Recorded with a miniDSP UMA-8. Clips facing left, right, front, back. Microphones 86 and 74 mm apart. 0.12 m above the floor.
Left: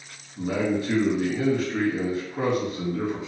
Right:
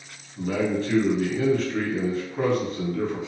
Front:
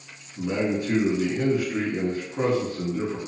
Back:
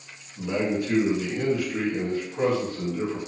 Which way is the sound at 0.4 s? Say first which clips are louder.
Even, front 1 dB; 30° left.